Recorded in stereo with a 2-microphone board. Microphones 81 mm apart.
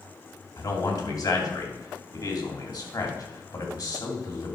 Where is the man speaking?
50° left (ahead or behind), 2.5 m.